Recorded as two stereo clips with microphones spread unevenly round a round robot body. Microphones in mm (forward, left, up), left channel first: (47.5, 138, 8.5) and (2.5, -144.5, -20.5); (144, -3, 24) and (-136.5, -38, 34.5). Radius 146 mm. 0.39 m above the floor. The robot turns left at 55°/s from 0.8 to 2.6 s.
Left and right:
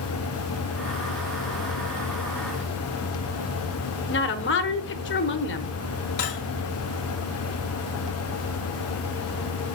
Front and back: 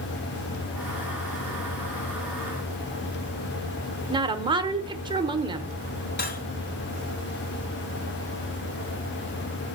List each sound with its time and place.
4.1 s a woman speaking: 120° left, 1.0 m
6.2 s cutlery clinking: 60° left, 1.3 m